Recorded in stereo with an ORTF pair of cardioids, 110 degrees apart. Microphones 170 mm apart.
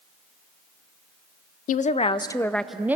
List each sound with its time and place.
1.7 s a woman speaking: 55° left, 0.6 m; by 3.0 s 10° right, 0.7 m